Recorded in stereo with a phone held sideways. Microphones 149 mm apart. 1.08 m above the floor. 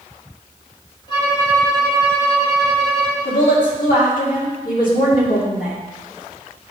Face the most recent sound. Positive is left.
turn(degrees=65)  # may be behind; listen again after turning